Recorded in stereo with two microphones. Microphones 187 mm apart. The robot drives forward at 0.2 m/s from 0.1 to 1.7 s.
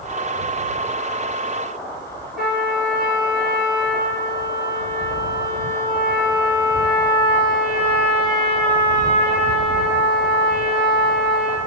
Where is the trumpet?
55° right (ahead or behind), 1.3 m.